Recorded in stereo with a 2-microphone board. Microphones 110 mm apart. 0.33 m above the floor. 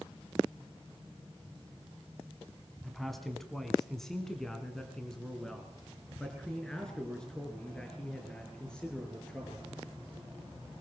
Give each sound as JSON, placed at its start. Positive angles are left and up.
{"t": 2.8, "sound": "a man speaking", "side_deg": 0, "distance_m": 2.5}